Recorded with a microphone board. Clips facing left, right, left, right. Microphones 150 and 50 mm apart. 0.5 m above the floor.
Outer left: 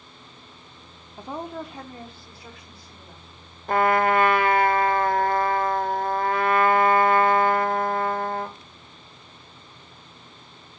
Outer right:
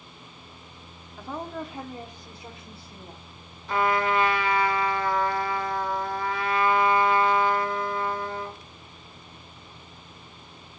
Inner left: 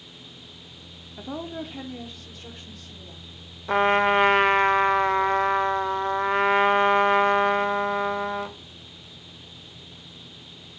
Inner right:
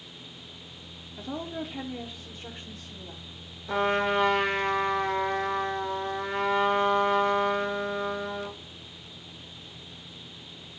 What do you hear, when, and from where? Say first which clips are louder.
1.2 s a woman speaking: outer left 1 dB, inner left 1 dB; 20° left (ahead or behind), 0.7 m; by 3.2 s 30° right (ahead or behind), 1.4 m
3.7 s a trumpet: outer left 4 dB, inner left 6 dB; 55° left (ahead or behind), 0.6 m